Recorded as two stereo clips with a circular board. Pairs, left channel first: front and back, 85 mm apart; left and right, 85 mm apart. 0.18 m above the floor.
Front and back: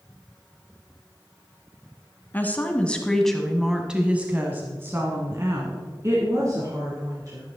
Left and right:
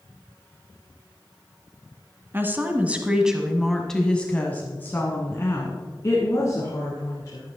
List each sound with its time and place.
2.3 s a woman speaking: 50° right, 1.3 m; by 7.5 s 135° left, 2.5 m